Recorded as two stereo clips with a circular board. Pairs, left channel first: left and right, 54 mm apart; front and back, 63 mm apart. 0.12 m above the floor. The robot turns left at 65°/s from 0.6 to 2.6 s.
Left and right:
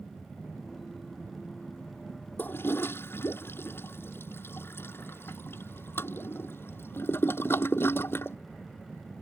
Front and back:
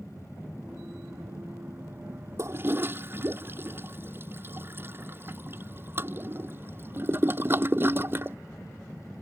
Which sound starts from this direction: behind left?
A toilet flushing, at 2.4 s.